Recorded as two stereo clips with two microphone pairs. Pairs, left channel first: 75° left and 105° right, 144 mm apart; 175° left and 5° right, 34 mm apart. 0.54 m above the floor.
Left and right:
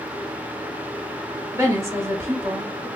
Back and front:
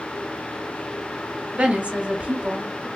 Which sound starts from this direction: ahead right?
A woman speaking, at 1.5 s.